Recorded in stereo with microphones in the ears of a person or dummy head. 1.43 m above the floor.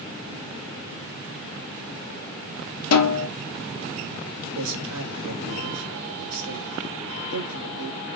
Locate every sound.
2.9 s a snare drum: 75° left (ahead or behind), 1.0 m
4.5 s a man speaking: 80° right, 2.5 m